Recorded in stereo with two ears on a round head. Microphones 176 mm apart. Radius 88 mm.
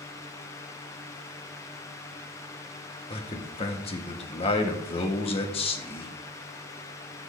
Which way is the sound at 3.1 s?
30° left (ahead or behind).